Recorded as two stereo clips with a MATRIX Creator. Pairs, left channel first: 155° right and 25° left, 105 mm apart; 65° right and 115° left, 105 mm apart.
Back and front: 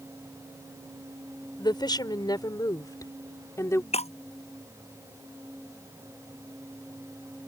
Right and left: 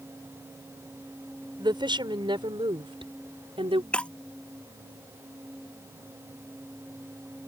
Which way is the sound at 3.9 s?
145° right.